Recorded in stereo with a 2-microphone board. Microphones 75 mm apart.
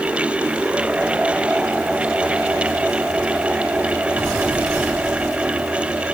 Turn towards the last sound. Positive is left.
No sound to turn to.